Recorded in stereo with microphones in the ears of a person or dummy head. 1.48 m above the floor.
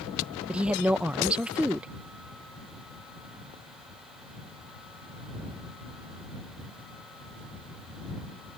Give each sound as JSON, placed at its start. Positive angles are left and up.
{"t": 0.5, "sound": "a woman speaking", "side_deg": -10}